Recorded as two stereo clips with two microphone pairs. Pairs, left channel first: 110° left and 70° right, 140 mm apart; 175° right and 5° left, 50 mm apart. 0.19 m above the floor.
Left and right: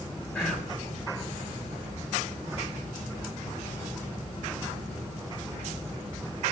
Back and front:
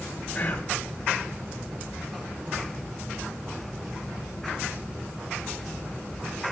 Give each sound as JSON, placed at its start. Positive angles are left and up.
{"t": 0.3, "sound": "whispering", "azimuth_deg": 155, "distance_m": 1.5}